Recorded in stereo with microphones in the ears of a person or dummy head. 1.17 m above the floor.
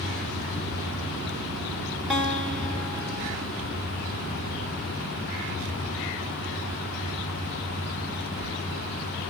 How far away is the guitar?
About 1.1 m.